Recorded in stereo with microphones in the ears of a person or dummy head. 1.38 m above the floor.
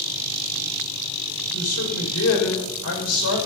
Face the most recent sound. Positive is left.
turn(degrees=80)